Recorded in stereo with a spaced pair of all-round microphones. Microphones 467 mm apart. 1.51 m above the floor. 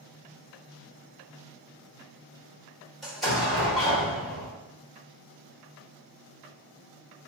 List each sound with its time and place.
3.0 s an explosion: centre (ahead or behind), 1.5 m